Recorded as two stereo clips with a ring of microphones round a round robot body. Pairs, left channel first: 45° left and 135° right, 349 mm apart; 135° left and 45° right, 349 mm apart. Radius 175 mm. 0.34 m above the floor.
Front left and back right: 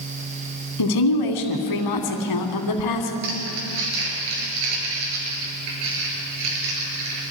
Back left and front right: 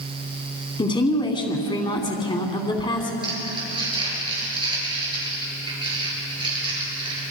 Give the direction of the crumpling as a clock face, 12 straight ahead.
4 o'clock.